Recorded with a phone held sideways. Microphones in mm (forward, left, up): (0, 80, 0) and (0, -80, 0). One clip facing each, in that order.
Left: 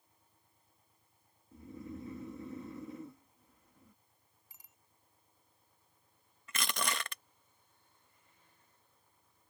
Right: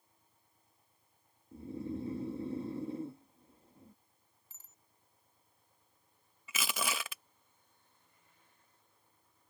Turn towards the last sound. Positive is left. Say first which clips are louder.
# even
turn(degrees=-5)  # may be behind; listen again after turning